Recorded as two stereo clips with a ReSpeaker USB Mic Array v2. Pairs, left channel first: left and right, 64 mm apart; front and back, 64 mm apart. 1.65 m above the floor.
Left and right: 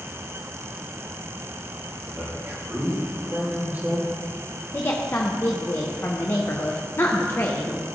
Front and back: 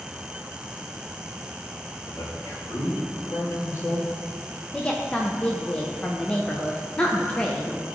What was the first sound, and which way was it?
A man speaking, 35° right.